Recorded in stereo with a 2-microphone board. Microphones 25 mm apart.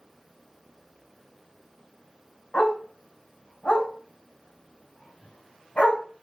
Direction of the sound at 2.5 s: 75° left (ahead or behind).